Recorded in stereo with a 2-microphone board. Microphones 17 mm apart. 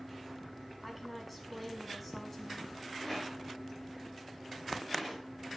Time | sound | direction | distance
0.8 | a woman speaking | centre (ahead or behind) | 5.5 m
3.0 | a rattle | 10° left (ahead or behind) | 8.5 m